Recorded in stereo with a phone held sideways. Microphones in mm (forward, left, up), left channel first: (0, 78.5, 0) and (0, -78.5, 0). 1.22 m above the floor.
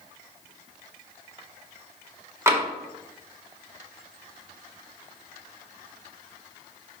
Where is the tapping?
20° right (ahead or behind), 1.3 m.